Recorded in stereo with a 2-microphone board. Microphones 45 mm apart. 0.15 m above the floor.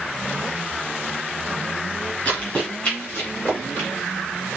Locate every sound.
2.2 s running footsteps: 35° left (ahead or behind), 6 m; by 3.9 s 55° left (ahead or behind), 7 m